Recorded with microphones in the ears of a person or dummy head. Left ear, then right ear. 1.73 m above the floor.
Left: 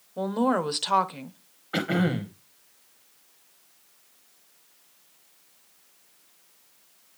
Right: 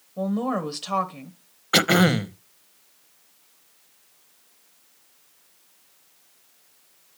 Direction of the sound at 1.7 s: 45° right (ahead or behind).